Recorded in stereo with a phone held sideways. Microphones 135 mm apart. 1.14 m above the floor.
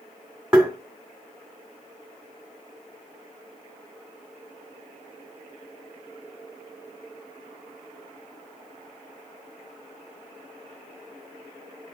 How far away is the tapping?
About 2.0 m.